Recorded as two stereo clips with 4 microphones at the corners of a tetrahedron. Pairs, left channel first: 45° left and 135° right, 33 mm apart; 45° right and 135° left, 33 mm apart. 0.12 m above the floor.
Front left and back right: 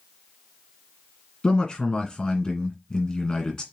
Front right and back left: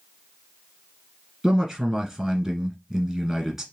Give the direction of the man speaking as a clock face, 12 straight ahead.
10 o'clock.